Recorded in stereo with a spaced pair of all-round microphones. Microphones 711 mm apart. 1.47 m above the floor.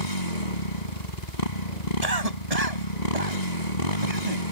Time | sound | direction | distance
0.0 | a motorcycle | 80° left | ?
2.0 | a cough | 60° right (ahead or behind) | ?